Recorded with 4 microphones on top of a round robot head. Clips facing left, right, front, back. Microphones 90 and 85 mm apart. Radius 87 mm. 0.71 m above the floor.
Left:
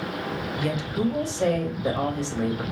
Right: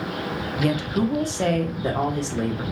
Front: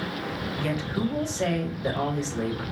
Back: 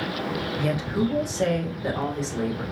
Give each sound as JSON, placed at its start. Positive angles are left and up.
{"t": 0.6, "sound": "a woman speaking", "azimuth_deg": -110, "distance_m": 1.2}